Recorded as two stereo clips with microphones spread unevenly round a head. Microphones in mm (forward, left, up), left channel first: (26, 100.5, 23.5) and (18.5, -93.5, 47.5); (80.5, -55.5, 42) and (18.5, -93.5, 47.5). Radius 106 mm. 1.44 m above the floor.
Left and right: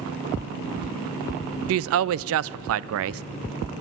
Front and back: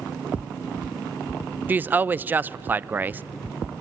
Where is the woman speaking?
80° right, 0.5 m.